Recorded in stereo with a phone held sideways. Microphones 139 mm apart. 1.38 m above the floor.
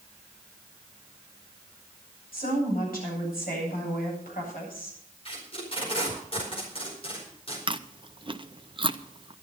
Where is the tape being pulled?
40° left (ahead or behind), 4.5 m.